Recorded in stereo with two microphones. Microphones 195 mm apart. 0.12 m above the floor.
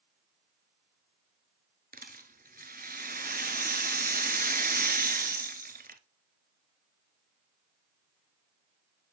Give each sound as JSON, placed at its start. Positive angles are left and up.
{"t": 1.9, "sound": "a rattle", "side_deg": -50, "distance_m": 0.9}